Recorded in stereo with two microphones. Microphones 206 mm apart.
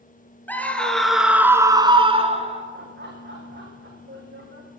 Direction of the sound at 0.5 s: 10° left (ahead or behind).